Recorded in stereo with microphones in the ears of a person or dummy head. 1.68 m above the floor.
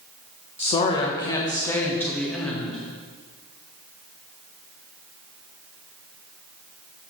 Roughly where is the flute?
No flute in this recording.